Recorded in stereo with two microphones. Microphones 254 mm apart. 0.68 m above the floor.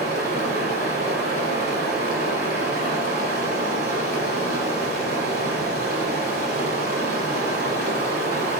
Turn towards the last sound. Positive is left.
turn(degrees=-40)  # may be behind; listen again after turning